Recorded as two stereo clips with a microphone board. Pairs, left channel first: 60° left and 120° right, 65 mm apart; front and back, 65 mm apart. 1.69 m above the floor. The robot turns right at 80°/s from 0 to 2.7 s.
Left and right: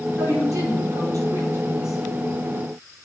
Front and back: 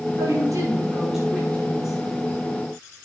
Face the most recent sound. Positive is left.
turn(degrees=25)